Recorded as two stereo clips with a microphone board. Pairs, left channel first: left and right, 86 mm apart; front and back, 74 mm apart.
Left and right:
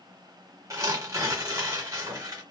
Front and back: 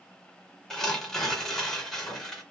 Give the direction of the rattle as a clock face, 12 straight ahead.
I don't hear a rattle.